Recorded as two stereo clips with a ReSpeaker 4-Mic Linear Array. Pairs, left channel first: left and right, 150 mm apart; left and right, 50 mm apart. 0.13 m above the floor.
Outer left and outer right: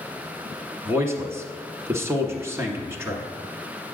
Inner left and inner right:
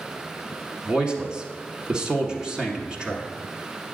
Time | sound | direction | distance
0.8 | a man speaking | 15° right (ahead or behind) | 1.2 m